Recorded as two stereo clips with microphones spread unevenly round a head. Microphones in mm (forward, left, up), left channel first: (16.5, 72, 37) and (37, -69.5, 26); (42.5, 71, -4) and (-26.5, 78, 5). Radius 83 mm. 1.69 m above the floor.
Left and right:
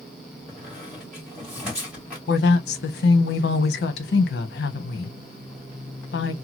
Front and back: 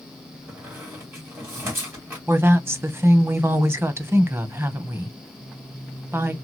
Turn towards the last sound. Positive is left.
turn(degrees=120)